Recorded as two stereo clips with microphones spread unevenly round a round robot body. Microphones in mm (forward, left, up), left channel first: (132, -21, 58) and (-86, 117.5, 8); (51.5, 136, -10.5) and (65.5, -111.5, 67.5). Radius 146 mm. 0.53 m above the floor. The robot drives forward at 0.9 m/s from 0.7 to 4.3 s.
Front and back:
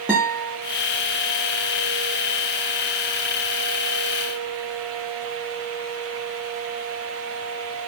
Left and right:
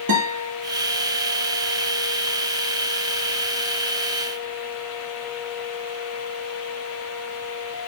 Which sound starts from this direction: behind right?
A guitar, at 0.1 s.